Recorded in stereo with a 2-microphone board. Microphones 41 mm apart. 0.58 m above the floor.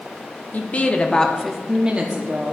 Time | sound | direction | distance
0.5 | a woman speaking | 45° left (ahead or behind) | 0.9 m